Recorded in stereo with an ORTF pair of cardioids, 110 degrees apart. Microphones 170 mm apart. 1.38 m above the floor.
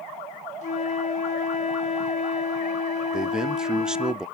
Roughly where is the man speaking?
Ahead.